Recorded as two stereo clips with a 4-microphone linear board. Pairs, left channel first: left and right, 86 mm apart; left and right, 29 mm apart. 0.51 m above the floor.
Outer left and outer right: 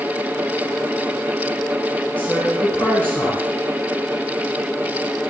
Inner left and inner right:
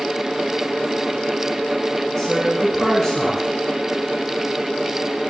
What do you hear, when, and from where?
2.2 s a woman speaking: 15° left (ahead or behind), 6 m